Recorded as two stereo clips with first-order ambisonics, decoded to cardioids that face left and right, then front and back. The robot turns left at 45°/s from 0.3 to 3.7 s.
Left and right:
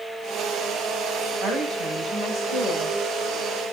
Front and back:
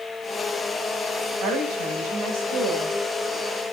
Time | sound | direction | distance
1.4 | a woman speaking | 155° right | 4.5 m